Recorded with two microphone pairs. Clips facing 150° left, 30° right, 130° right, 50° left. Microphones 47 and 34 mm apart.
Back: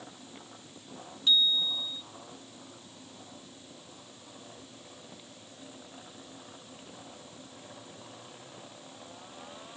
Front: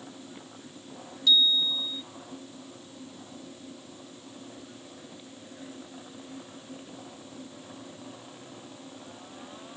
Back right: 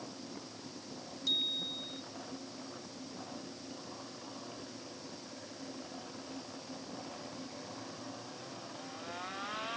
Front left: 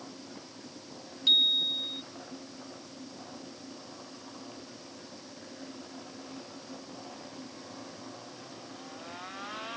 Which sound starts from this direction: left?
A bicycle bell, at 1.3 s.